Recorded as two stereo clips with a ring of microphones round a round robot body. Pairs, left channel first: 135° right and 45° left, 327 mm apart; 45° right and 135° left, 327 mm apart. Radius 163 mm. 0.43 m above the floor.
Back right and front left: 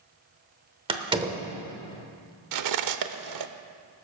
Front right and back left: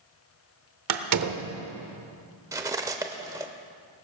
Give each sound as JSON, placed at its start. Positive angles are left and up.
{"t": 0.9, "sound": "a door slam", "azimuth_deg": 115, "distance_m": 0.9}
{"t": 2.5, "sound": "cutlery clinking", "azimuth_deg": 55, "distance_m": 0.7}